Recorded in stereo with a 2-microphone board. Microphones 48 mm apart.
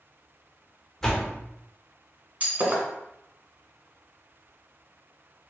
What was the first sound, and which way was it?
A door slam, 10° left (ahead or behind).